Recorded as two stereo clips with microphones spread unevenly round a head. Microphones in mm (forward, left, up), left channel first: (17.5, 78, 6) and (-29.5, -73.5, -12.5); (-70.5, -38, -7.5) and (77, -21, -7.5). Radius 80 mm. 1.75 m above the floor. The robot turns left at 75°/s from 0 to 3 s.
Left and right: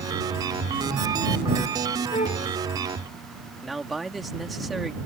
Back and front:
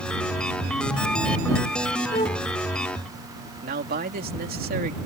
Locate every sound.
2.1 s a flute: 135° left; by 2.5 s 105° left
3.6 s a man speaking: 15° right